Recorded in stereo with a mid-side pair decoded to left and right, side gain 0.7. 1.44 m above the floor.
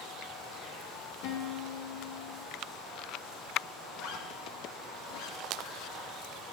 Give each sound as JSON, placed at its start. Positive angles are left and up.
{"t": 1.2, "sound": "a guitar", "azimuth_deg": 65, "distance_m": 3.0}
{"t": 3.9, "sound": "a zipper", "azimuth_deg": 65, "distance_m": 2.5}